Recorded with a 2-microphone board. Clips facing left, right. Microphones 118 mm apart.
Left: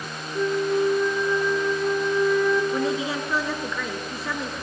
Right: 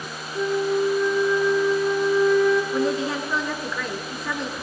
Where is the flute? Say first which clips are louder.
Even; 5° left (ahead or behind), 4 m.